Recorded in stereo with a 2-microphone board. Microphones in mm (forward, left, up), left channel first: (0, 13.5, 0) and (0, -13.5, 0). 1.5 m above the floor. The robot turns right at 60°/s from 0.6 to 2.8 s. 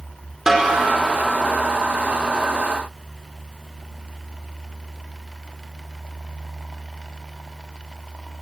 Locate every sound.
0.5 s a snare drum: 15° right (ahead or behind), 4.5 m; by 0.8 s 25° right (ahead or behind), 4.5 m